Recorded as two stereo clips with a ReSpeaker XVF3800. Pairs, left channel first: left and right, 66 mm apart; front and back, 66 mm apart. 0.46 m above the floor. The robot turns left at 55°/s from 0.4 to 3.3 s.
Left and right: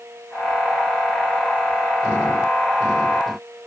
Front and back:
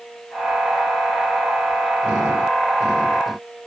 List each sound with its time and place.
Only background noise.